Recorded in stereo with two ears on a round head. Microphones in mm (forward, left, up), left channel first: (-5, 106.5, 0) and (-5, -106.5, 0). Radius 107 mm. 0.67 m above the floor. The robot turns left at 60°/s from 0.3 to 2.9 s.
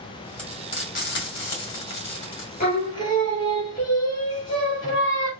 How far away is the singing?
About 1.3 m.